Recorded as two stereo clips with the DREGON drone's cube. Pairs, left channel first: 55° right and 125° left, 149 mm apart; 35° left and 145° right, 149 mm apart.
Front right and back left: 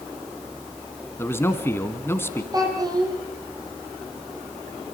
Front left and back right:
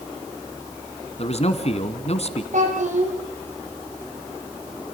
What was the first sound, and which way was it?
A man speaking, 15° left.